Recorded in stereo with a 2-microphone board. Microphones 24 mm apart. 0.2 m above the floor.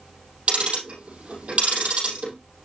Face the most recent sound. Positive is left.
turn(degrees=-65)  # may be behind; listen again after turning